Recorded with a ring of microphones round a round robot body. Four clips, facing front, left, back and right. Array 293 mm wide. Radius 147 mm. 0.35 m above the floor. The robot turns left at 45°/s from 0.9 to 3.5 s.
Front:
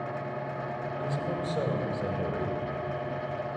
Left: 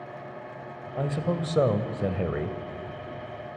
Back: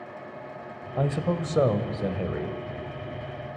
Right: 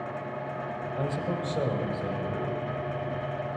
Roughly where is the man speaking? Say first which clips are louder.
Left 4 dB, back 8 dB; behind.